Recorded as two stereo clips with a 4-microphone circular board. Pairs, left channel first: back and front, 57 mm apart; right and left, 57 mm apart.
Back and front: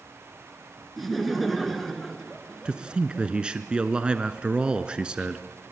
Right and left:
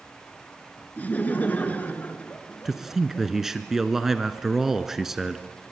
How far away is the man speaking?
About 1.1 m.